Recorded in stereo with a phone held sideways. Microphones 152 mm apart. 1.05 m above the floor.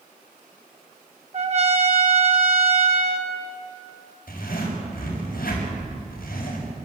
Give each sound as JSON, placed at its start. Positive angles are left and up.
{"t": 1.3, "sound": "a trumpet", "side_deg": -45, "distance_m": 2.0}
{"t": 4.3, "sound": "a zipper", "side_deg": 70, "distance_m": 6.5}